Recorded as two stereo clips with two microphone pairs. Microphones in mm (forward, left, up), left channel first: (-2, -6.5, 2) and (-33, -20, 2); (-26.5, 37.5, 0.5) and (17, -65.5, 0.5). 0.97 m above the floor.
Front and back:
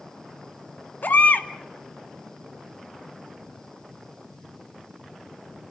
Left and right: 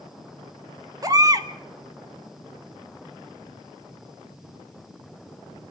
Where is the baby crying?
10° right, 1.6 m.